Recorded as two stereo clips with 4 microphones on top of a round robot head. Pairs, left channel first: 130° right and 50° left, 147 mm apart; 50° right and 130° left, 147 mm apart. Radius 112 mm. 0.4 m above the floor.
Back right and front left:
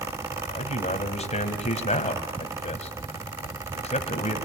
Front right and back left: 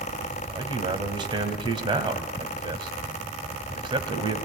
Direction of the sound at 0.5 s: 170° right.